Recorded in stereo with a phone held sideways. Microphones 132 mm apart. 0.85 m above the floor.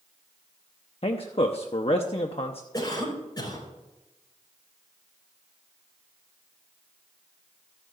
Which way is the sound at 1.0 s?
50° left (ahead or behind).